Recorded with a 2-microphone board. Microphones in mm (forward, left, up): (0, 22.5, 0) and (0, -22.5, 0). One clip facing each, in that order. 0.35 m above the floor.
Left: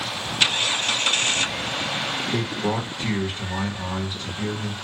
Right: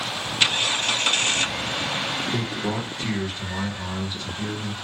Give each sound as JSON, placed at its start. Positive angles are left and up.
{"t": 2.3, "sound": "a man speaking", "side_deg": 20, "distance_m": 1.0}